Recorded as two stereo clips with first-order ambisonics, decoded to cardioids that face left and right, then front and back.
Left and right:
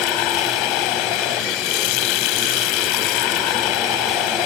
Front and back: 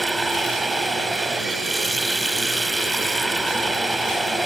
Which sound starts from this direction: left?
Running water, at 0.0 s.